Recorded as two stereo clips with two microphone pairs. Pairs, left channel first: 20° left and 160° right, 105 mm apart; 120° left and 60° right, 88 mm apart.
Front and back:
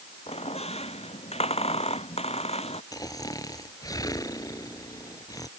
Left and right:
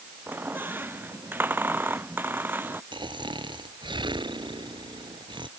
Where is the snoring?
35° right.